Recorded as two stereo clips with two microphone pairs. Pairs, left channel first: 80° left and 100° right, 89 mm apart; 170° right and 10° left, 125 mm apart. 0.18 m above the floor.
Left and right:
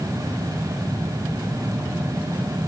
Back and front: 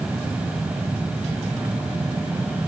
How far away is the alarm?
I don't hear an alarm.